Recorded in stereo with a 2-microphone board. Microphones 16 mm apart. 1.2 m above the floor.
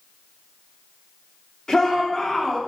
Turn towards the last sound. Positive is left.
turn(degrees=30)  # may be behind; listen again after turning